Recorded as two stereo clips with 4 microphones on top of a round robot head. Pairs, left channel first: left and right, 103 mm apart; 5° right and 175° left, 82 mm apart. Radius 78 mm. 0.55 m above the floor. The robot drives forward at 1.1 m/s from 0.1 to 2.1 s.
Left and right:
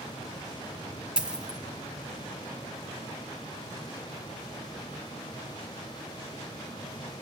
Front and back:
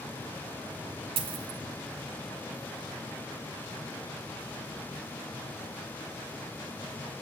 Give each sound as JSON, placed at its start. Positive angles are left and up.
{"t": 1.2, "sound": "a dropped coin", "azimuth_deg": -170, "distance_m": 1.9}